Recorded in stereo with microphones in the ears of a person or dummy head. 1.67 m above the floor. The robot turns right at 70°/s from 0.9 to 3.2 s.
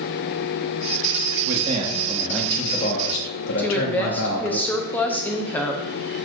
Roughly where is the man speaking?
Ahead right.